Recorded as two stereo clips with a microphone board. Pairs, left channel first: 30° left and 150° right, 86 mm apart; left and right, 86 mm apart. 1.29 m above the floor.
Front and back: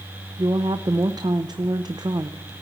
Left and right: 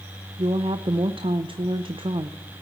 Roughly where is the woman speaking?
Right.